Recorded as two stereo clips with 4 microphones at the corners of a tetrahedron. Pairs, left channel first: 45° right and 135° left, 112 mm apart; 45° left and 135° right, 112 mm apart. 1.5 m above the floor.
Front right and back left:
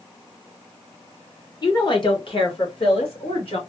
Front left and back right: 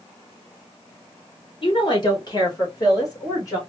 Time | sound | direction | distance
1.6 | a woman speaking | 5° left | 1.2 m